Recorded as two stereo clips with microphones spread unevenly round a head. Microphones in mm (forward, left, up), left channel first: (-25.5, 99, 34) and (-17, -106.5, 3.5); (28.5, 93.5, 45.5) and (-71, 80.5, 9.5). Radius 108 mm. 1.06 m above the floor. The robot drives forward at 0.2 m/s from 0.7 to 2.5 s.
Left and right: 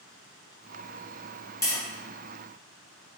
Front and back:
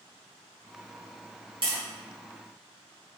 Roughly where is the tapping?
Behind.